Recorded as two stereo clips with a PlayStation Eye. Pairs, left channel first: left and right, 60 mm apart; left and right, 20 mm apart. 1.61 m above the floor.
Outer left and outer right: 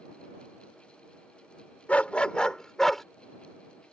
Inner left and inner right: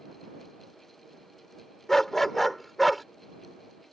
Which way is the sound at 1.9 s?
20° left (ahead or behind).